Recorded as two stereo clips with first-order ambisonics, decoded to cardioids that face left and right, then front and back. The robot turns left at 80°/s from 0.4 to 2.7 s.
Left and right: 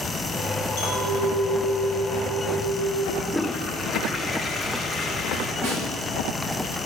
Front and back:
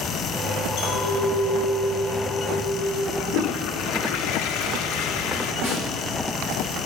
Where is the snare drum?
90° right, 5 m.